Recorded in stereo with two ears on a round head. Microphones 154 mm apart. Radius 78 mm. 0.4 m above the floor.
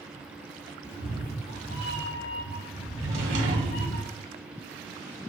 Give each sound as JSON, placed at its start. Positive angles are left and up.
{"t": 0.8, "sound": "a cat meowing", "side_deg": 40, "distance_m": 1.0}
{"t": 3.0, "sound": "a drawer", "side_deg": -45, "distance_m": 1.2}